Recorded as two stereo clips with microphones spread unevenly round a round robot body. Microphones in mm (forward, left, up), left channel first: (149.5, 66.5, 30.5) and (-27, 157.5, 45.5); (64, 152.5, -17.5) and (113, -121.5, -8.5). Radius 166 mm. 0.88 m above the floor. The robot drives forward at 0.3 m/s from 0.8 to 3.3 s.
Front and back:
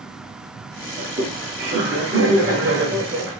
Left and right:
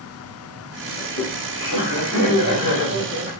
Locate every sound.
1.0 s laughter: 125° left, 1.6 m; by 3.4 s 140° left, 2 m